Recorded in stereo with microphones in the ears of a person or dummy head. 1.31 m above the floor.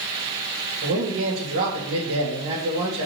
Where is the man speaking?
70° right (ahead or behind), 2.5 m.